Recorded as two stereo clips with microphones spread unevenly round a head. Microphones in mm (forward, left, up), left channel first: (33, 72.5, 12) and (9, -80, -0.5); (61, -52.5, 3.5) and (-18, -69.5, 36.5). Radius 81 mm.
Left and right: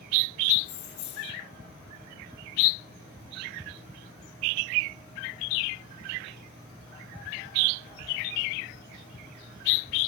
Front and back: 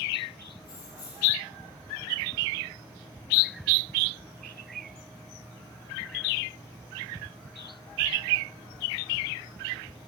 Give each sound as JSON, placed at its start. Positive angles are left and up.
{"t": 0.6, "sound": "keys jangling", "azimuth_deg": 70, "distance_m": 2.5}